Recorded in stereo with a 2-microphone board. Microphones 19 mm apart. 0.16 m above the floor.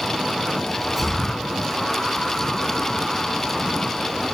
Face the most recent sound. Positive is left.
turn(degrees=-5)  # may be behind; listen again after turning